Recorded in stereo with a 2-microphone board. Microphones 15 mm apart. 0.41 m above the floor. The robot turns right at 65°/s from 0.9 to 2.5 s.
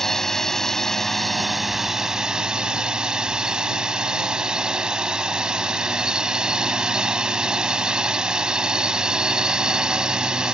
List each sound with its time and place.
0.0 s a drone: 145° left; by 10.5 s 110° right